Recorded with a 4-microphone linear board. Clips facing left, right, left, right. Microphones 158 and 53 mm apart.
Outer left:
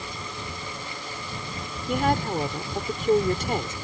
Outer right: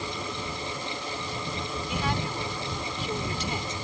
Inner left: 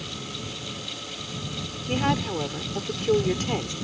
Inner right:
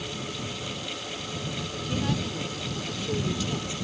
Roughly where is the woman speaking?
Left.